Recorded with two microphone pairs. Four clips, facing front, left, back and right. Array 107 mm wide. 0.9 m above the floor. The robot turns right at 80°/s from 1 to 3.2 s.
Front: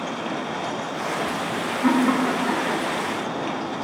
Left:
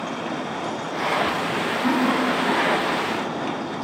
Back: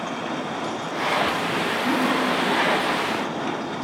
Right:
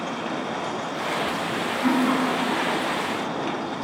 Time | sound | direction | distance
1.8 | laughter | 5° right | 3 m